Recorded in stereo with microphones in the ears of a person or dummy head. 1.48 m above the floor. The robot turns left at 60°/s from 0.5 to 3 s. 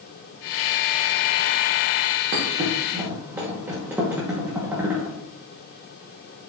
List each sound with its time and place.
2.3 s a thud: 35° right (ahead or behind), 1.1 m; by 5.2 s 5° right (ahead or behind), 1.1 m